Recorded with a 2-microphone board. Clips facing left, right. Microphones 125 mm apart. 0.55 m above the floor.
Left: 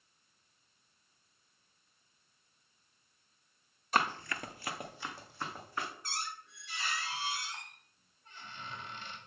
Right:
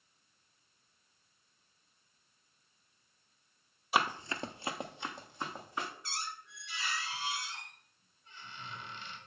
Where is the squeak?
45° left (ahead or behind), 2 m.